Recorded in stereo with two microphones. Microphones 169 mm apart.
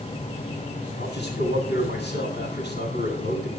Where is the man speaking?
80° left, 9.5 m.